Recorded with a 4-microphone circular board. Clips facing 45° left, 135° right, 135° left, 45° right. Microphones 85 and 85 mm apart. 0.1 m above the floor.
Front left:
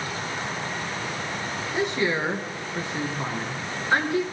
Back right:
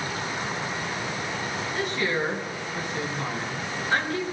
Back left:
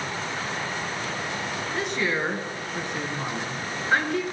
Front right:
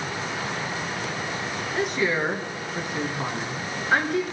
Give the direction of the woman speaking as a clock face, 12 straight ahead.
11 o'clock.